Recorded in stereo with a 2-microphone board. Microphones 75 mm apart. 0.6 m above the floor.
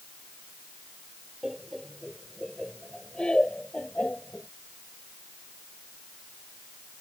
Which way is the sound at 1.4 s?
Centre (ahead or behind).